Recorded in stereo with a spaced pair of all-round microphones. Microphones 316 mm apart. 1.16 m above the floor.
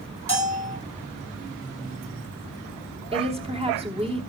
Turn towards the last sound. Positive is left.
turn(degrees=-15)  # may be behind; listen again after turning